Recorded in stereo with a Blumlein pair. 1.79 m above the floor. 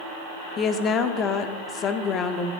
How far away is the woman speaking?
About 1.0 m.